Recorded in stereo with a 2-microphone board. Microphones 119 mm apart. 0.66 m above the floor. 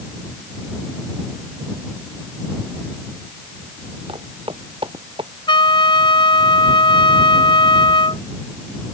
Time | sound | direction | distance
4.1 | footsteps | 50° right (ahead or behind) | ?
5.5 | a trumpet | 45° left (ahead or behind) | ?